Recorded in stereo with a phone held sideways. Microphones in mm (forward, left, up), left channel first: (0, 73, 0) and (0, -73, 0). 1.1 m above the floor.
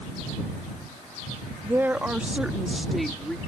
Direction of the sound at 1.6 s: 20° right (ahead or behind).